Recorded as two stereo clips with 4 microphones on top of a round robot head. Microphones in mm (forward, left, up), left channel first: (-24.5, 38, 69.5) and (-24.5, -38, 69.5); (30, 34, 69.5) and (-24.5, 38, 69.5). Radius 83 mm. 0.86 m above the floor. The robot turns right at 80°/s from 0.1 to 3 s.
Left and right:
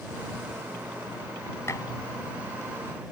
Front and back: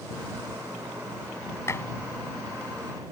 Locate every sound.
1.7 s dishes clattering: 30° left; by 1.9 s 45° left